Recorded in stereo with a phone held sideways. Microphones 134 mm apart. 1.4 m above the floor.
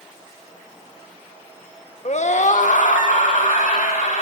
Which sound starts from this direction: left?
A scream, at 2.0 s.